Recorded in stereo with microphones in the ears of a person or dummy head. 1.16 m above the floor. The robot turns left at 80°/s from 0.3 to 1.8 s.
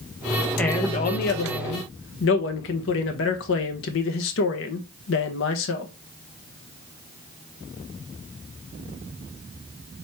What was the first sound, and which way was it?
A man speaking, 175° left.